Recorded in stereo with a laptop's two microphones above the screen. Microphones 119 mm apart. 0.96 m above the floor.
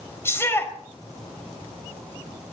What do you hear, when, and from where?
0.2 s a shout: 20° left (ahead or behind), 4 m